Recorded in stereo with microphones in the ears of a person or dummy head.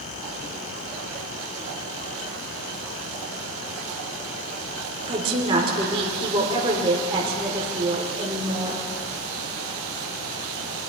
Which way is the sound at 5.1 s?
25° right (ahead or behind).